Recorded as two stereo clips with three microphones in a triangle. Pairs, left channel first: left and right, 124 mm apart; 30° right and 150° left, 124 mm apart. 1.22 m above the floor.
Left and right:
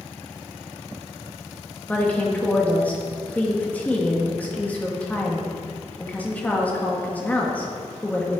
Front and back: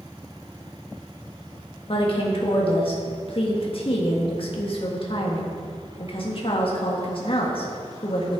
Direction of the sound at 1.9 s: 10° left.